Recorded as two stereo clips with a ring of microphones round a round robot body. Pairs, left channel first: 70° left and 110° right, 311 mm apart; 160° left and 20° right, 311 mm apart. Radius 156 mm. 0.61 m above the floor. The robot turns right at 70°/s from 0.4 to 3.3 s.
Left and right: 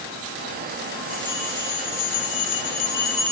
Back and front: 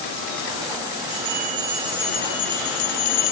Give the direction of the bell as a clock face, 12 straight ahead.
12 o'clock.